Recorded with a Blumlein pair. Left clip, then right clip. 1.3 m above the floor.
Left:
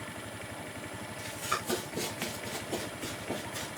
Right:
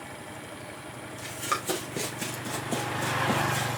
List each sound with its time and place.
1.2 s running footsteps: 25° right, 5.5 m; by 3.7 s 40° right, 6 m